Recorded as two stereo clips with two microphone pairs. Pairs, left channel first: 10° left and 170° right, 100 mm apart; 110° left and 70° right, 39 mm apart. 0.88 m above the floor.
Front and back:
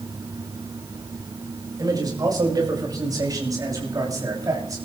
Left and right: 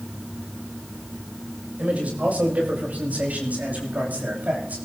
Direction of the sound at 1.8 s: 125° right.